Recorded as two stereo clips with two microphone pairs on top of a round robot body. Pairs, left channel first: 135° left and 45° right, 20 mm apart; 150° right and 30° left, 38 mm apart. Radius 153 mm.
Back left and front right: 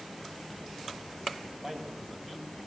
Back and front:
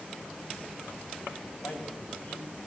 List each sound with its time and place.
1.6 s a man speaking: 115° right, 7 m